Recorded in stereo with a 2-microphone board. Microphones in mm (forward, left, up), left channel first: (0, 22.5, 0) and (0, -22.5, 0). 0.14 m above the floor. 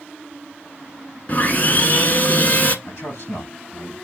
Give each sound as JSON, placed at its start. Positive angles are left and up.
{"t": 1.3, "sound": "sawing", "side_deg": 40, "distance_m": 1.0}
{"t": 2.9, "sound": "a man speaking", "side_deg": 65, "distance_m": 5.0}